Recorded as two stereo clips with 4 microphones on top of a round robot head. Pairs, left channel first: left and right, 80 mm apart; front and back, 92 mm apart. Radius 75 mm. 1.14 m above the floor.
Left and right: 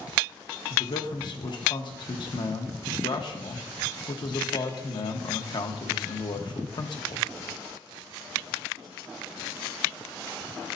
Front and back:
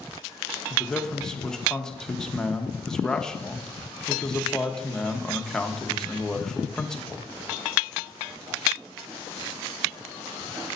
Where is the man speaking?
80° left, 1.2 m.